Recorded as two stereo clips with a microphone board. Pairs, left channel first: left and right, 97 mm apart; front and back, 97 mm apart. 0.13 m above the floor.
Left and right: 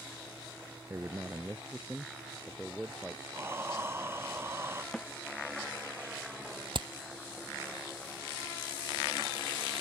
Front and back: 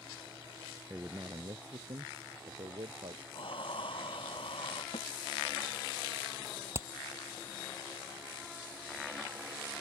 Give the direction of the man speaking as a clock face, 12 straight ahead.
4 o'clock.